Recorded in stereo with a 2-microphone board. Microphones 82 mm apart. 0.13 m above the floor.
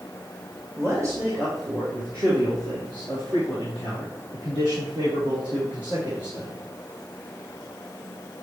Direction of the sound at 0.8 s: 35° right (ahead or behind).